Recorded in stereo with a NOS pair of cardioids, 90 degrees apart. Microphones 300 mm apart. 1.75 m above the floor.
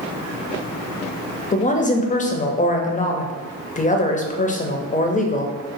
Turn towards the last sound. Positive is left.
turn(degrees=25)